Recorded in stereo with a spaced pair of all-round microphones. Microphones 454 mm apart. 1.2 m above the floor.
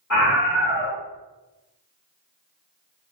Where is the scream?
35° left (ahead or behind), 1.2 m.